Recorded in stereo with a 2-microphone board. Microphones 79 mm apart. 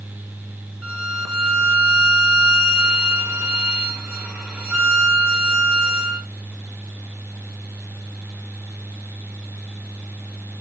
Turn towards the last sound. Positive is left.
turn(degrees=-10)  # may be behind; listen again after turning